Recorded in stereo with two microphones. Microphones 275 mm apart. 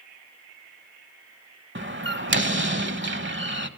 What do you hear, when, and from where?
1.8 s a door slam: 40° right (ahead or behind), 0.9 m